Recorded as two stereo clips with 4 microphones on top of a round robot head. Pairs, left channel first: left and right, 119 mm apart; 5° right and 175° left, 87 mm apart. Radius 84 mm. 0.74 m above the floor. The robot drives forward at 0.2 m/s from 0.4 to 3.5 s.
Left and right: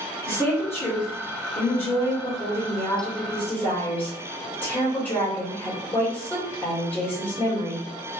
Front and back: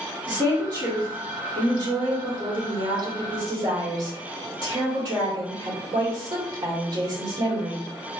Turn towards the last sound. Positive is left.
turn(degrees=160)